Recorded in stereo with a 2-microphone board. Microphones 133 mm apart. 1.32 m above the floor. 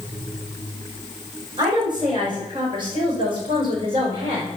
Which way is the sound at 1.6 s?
35° right (ahead or behind).